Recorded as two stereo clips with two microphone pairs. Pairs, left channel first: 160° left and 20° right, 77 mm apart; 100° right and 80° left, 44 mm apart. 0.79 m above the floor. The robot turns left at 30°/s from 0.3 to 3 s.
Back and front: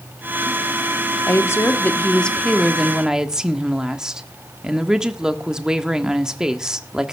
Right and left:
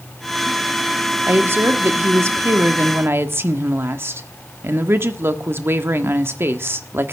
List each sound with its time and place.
1.3 s a woman speaking: 110° left, 1.4 m; by 7.1 s 60° left, 1.4 m